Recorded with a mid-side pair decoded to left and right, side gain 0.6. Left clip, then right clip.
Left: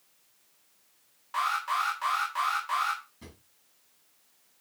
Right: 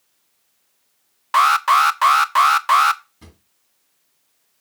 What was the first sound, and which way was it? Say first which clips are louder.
An alarm: right 15 dB; 65° right.